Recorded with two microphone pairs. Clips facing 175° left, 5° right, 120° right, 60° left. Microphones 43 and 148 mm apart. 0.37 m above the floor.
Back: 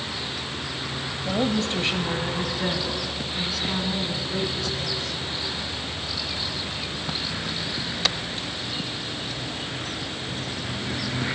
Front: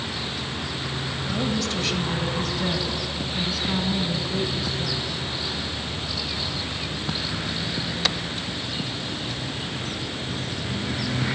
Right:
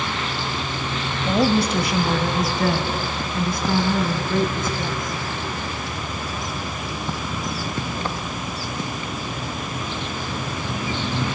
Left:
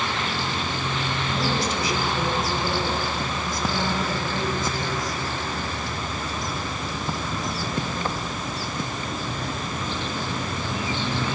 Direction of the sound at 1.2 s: 140° right.